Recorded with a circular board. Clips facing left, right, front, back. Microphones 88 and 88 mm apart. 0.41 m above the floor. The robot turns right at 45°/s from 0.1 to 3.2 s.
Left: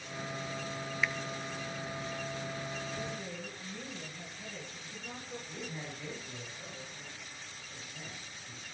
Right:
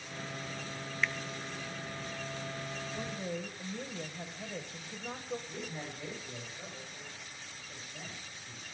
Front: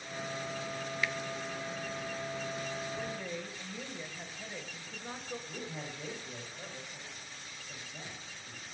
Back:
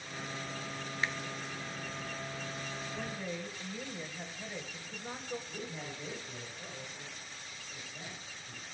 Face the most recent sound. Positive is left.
turn(degrees=-20)